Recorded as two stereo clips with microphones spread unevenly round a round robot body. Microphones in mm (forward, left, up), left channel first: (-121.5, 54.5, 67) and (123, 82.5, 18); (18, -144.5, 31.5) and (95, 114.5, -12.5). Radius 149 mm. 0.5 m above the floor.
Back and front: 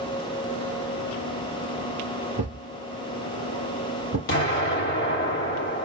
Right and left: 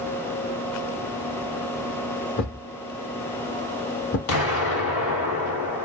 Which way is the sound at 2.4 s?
65° right.